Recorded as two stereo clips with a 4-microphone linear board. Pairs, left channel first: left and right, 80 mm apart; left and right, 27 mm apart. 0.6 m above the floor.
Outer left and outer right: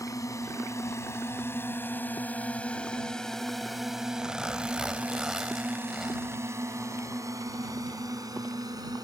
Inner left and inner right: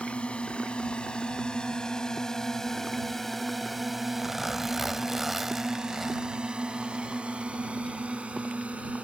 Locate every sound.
0.0 s a drone: 45° left (ahead or behind); by 9.0 s 55° right (ahead or behind)
4.2 s a zipper: 5° right (ahead or behind)